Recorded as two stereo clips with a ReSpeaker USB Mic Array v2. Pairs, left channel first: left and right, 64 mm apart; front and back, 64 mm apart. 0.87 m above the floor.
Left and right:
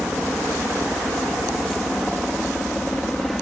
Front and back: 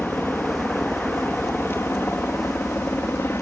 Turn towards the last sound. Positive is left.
turn(degrees=5)